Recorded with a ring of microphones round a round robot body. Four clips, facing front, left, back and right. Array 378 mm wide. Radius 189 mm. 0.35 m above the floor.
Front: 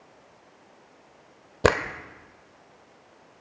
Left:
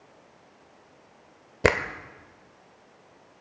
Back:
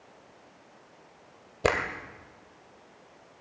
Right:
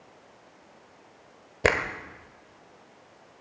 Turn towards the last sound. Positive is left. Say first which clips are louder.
# left 2 dB, front 5 dB
turn(degrees=35)